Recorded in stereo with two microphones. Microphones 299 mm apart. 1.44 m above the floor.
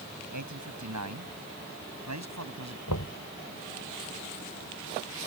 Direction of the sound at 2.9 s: 75° left (ahead or behind).